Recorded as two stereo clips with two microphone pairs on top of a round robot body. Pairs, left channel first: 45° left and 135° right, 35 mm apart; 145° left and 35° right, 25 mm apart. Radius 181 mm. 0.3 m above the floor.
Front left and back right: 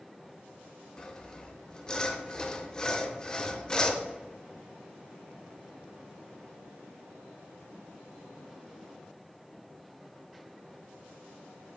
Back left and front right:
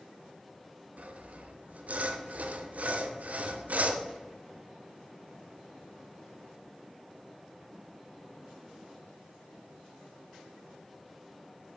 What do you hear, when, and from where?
1.0 s sawing: 20° right, 0.6 m